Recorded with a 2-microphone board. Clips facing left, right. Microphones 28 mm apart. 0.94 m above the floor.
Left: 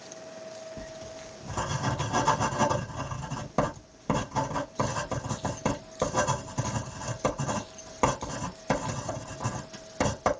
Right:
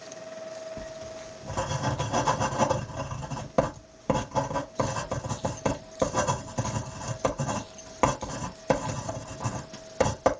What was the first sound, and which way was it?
Writing, 15° right (ahead or behind).